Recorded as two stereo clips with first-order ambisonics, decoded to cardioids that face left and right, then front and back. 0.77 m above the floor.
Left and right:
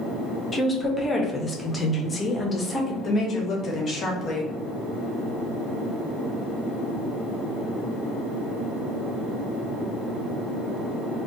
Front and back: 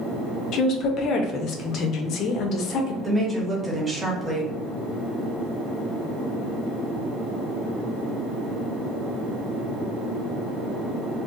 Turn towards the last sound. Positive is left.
turn(degrees=120)